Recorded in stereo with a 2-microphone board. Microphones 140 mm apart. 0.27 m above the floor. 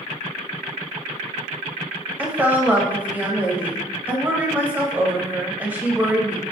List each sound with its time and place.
2.2 s a woman speaking: 15° right (ahead or behind), 0.9 m